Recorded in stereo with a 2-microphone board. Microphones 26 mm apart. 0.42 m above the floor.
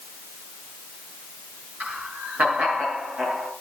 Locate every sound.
1.8 s laughter: 80° right, 6.5 m